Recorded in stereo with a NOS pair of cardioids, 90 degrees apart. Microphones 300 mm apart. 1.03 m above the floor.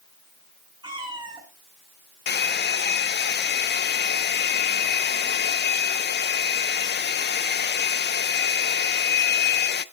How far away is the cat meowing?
About 6.5 m.